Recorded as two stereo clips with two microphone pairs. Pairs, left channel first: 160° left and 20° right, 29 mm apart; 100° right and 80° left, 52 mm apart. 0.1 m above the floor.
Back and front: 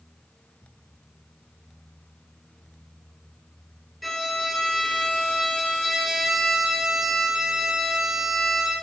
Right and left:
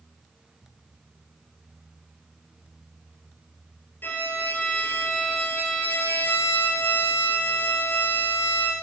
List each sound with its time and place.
4.0 s a violin: 120° right, 1.8 m